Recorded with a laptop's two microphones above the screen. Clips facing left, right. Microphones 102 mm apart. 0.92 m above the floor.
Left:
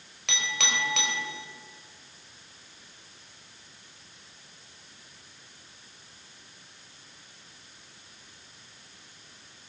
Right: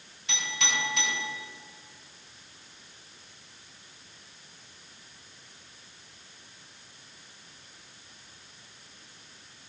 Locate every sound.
0.3 s a clink: 85° left, 3 m